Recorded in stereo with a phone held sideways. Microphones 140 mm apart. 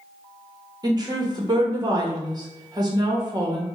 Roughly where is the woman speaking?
Right.